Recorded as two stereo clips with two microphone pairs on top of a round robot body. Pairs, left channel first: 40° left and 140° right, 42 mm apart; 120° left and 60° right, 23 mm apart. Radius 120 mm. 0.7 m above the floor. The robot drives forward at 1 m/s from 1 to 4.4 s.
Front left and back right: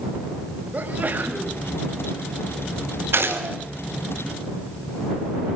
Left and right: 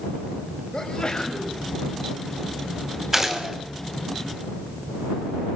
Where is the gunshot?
125° right, 5.5 m; by 3.5 s 130° right, 5.5 m.